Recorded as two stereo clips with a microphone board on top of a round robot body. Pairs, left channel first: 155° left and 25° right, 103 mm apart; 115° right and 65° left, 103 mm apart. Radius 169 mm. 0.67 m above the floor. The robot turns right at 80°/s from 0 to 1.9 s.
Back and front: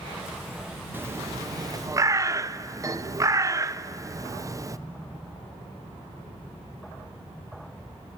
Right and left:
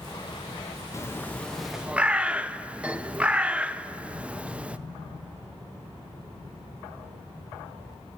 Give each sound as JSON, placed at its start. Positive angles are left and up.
{"t": 0.9, "sound": "a bird", "azimuth_deg": -80, "distance_m": 0.8}